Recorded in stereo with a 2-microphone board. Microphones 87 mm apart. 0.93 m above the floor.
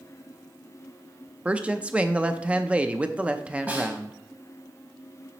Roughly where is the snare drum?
Centre.